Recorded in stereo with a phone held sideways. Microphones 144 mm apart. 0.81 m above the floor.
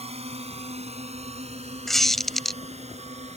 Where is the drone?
45° right (ahead or behind); by 3.4 s 50° right (ahead or behind).